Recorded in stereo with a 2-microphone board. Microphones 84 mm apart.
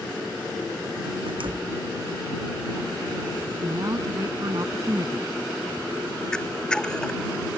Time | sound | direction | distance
1.3 | a door slam | 75° right (ahead or behind) | ?
3.6 | a woman speaking | 45° right (ahead or behind) | ?
6.3 | a camera shutter | 10° left (ahead or behind) | ?